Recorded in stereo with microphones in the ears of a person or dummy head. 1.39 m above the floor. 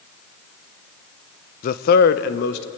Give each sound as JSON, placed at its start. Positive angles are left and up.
{"t": 1.6, "sound": "a man speaking", "side_deg": 55, "distance_m": 0.8}